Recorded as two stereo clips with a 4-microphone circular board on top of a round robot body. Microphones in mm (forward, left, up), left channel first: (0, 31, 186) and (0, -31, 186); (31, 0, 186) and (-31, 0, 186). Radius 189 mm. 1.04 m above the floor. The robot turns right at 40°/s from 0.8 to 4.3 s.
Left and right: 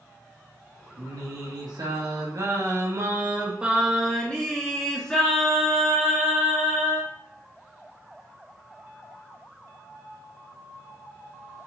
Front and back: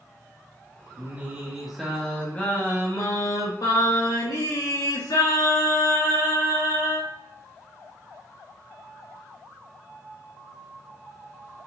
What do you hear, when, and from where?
1.0 s singing: 120° right, 2.5 m; by 7.1 s 10° left, 2.5 m